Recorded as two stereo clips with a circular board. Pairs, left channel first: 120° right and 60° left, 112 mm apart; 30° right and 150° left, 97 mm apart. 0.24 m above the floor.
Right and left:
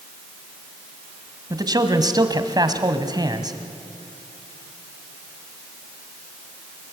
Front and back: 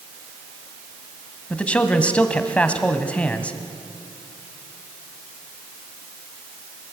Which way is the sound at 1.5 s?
40° left.